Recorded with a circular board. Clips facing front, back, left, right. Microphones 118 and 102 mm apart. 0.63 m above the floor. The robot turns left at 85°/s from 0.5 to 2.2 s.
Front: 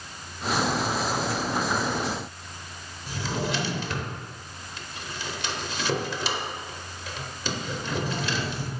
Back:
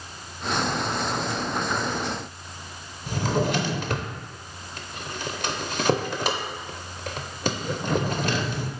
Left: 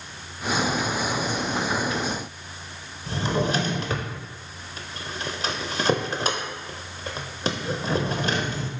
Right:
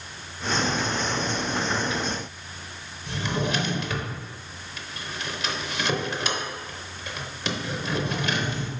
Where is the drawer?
140° left, 0.6 m.